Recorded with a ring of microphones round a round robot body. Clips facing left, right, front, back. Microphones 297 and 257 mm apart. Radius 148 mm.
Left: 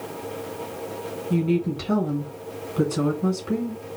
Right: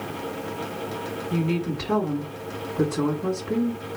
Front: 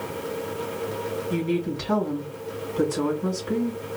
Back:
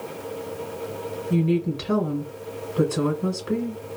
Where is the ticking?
I don't hear ticking.